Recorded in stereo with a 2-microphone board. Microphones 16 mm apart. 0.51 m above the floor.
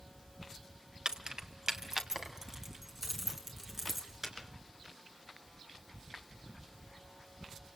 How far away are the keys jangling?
About 1.4 m.